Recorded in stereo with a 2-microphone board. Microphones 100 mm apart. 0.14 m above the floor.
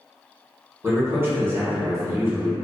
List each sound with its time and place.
0.8 s a man speaking: 25° right (ahead or behind), 1.5 m